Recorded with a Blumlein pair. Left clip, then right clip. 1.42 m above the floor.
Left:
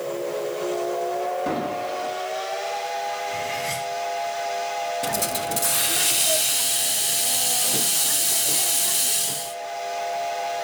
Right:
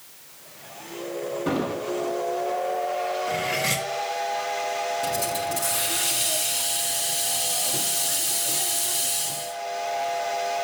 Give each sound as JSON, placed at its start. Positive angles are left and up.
{"t": 1.5, "sound": "an explosion", "azimuth_deg": 0, "distance_m": 6.5}
{"t": 3.3, "sound": "cutlery clinking", "azimuth_deg": -25, "distance_m": 1.5}
{"t": 5.0, "sound": "a hiss", "azimuth_deg": 20, "distance_m": 0.9}